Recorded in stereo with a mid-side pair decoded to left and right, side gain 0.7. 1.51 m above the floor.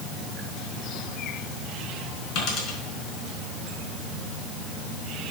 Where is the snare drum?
No snare drum in this recording.